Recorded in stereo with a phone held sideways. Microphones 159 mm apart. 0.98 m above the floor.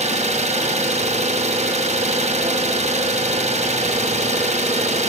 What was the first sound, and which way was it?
An engine running, 45° right (ahead or behind).